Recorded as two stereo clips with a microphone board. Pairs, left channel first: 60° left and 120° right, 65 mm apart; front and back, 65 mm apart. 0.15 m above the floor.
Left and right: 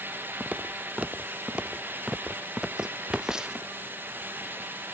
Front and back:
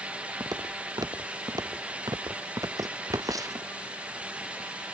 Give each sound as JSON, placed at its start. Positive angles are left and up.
{"t": 0.4, "sound": "footsteps", "azimuth_deg": 170}